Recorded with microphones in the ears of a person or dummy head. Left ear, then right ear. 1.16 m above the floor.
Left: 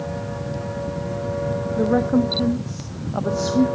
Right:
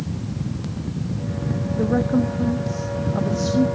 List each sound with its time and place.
1.8 s a woman speaking: 25° left (ahead or behind), 0.8 m